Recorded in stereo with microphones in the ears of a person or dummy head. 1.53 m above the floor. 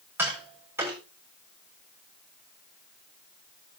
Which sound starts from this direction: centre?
Tapping, at 0.2 s.